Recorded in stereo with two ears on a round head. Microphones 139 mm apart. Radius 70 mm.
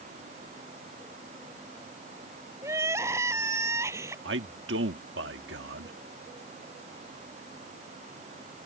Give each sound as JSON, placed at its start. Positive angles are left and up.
{"t": 2.6, "sound": "crying", "side_deg": -15}
{"t": 4.2, "sound": "a man speaking", "side_deg": -85}